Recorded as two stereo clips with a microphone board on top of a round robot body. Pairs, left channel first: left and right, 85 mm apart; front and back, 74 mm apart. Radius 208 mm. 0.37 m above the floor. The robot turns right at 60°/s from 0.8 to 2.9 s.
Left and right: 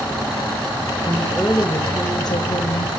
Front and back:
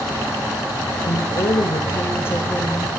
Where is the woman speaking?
15° right, 2.5 m; by 2.9 s 95° left, 2.5 m.